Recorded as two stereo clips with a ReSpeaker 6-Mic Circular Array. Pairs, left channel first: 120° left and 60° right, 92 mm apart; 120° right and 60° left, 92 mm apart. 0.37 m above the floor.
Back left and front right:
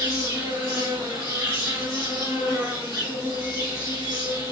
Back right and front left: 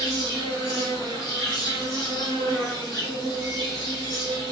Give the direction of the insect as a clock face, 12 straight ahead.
3 o'clock.